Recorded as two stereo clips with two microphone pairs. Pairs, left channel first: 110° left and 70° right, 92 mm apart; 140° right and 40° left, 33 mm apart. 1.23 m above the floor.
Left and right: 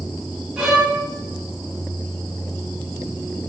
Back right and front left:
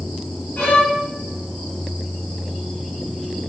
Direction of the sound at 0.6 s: 155° right.